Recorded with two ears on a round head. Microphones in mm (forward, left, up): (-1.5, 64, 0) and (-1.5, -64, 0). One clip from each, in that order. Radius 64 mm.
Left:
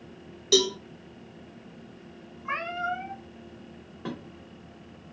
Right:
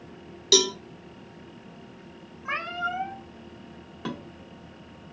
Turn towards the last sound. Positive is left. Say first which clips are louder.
# right 2 dB
turn(degrees=-65)  # may be behind; listen again after turning